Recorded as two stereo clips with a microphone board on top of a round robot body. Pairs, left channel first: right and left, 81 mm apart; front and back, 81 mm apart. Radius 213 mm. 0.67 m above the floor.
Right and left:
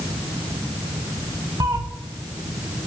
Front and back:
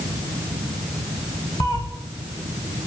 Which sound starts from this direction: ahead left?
A cat meowing, at 1.6 s.